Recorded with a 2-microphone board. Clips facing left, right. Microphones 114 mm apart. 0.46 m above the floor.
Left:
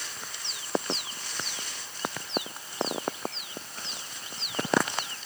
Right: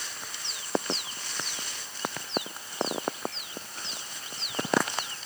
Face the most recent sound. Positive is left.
No sound to turn to.